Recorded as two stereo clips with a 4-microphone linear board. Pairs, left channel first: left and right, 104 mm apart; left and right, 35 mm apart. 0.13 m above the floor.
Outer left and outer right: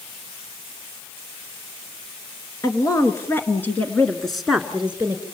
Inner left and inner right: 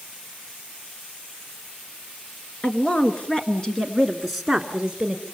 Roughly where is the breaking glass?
I don't hear breaking glass.